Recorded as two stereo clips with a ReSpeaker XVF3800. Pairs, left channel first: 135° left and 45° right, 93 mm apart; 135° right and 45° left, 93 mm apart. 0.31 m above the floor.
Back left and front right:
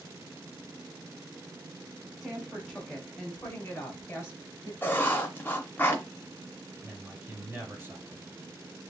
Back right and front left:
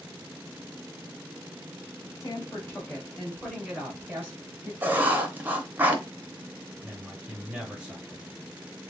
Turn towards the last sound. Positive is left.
turn(degrees=-20)